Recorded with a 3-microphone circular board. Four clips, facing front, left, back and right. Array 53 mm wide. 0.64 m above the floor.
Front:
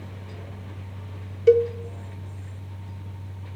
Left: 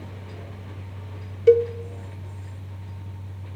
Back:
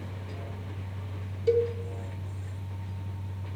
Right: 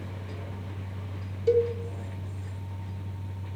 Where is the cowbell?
50° left, 0.6 m.